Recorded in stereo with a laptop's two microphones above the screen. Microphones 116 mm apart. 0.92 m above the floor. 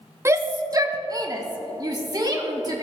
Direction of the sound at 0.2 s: 25° right (ahead or behind).